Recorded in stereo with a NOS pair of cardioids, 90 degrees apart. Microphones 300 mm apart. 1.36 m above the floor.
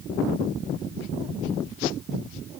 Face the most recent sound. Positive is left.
No sound to turn to.